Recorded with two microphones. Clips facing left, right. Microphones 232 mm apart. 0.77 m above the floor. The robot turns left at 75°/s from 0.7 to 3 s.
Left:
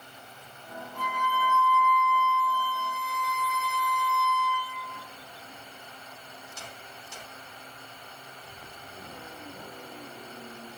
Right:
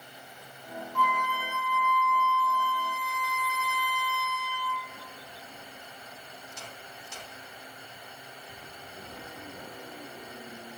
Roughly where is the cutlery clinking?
No cutlery clinking in this recording.